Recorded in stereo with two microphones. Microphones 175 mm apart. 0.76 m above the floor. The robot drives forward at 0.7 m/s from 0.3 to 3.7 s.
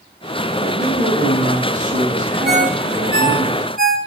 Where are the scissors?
No scissors in this recording.